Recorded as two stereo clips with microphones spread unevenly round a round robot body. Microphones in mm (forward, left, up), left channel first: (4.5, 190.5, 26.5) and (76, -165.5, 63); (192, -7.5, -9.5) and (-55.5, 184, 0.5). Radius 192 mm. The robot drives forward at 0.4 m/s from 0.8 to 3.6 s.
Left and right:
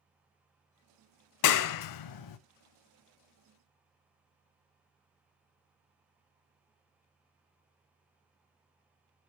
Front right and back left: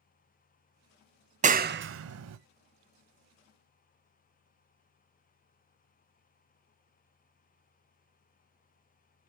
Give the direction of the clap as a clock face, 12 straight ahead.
9 o'clock.